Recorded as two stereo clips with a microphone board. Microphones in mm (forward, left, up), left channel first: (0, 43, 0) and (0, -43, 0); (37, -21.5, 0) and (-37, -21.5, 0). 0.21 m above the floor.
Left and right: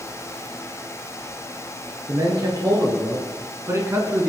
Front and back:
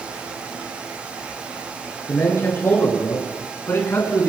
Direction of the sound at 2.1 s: 55° right.